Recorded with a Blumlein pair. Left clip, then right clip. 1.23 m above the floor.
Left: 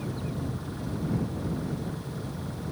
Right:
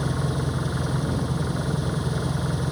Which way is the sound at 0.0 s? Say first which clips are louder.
Right 7 dB; 35° right.